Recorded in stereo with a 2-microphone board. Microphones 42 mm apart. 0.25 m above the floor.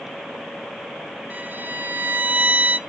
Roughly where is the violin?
Right.